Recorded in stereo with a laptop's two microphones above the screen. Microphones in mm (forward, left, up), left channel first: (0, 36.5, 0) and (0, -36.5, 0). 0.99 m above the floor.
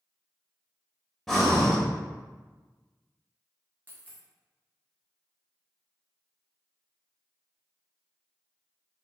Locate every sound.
1.3 s breathing: 5° left (ahead or behind), 0.7 m
3.9 s a dropped coin: 25° right (ahead or behind), 0.6 m